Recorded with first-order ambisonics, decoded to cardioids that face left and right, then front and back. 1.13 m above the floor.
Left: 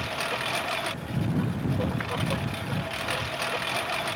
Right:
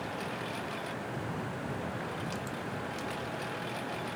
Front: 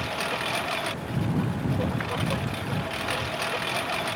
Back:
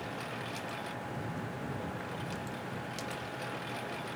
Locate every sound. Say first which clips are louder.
0.0 s a lawn mower: left 8 dB, front 11 dB; 45° left